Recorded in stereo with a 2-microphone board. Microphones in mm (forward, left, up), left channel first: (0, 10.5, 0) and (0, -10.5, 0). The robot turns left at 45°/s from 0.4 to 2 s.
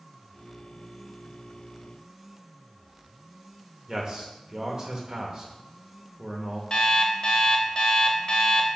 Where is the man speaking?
35° right (ahead or behind), 1.0 m.